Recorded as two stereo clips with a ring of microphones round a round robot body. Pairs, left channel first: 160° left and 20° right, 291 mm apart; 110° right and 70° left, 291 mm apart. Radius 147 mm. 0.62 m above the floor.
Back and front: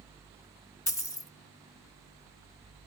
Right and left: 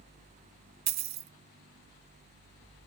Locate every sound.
0.9 s a dropped coin: 85° left, 0.6 m